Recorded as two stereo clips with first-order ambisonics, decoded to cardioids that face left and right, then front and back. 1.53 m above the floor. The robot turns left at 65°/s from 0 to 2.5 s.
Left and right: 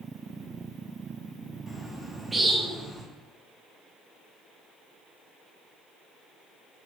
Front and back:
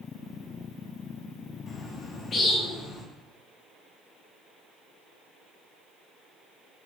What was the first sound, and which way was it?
A bird, 20° left.